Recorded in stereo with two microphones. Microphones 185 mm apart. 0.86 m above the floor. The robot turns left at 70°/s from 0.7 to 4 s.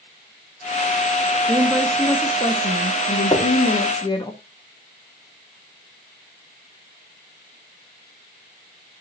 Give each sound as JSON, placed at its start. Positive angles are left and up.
{"t": 1.5, "sound": "a woman speaking", "azimuth_deg": -155, "distance_m": 1.4}
{"t": 3.3, "sound": "knocking", "side_deg": 25, "distance_m": 1.9}